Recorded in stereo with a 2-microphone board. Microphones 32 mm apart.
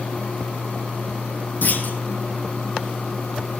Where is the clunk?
60° left (ahead or behind), 3 m.